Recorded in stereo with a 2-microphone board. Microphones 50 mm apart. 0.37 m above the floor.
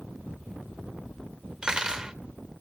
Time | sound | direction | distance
1.6 | cutlery clinking | 15° right (ahead or behind) | 0.6 m